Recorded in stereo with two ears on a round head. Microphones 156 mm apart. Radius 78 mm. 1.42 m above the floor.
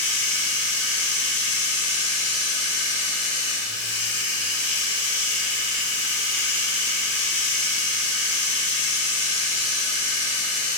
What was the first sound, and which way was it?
Running water, 70° left (ahead or behind).